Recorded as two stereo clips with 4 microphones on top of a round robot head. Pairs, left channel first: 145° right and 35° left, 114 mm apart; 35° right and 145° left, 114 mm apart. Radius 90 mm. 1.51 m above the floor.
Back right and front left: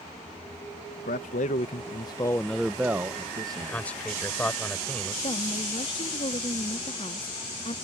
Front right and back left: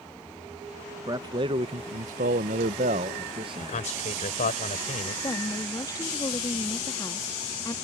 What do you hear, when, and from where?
1.1 s a man speaking: 155° right; by 3.9 s 90° left
3.6 s a man speaking: 65° right
5.2 s a woman speaking: 100° right